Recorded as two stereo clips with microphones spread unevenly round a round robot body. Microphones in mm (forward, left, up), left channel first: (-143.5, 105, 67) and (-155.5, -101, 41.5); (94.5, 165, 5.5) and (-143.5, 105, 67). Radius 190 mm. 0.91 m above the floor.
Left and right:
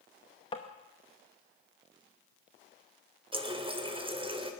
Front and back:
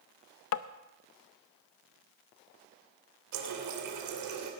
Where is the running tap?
160° right, 2.5 m.